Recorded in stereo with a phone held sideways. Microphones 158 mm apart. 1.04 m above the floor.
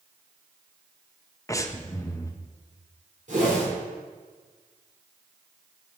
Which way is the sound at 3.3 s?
55° right (ahead or behind).